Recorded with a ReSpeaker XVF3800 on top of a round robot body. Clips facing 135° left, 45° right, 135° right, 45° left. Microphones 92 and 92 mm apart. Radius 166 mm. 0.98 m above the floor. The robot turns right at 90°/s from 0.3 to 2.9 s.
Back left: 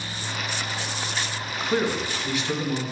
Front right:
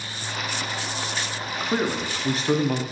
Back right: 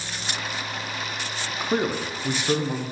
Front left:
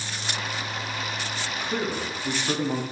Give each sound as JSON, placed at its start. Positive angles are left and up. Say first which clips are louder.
{"t": 1.6, "sound": "a man speaking", "louder": "back left 1 dB, back right 5 dB", "azimuth_deg": -140, "distance_m": 0.7}